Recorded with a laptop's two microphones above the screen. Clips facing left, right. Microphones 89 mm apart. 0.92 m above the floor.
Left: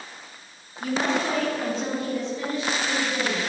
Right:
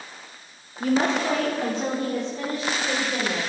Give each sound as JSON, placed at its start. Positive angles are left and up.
{"t": 0.8, "sound": "a woman speaking", "side_deg": -65, "distance_m": 1.6}